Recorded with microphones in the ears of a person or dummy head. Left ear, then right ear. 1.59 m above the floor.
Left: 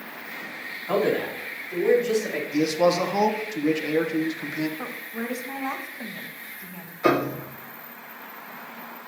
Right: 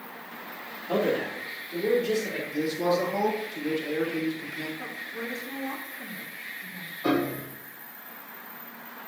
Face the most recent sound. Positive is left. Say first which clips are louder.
# left 5 dB
turn(degrees=60)  # may be behind; listen again after turning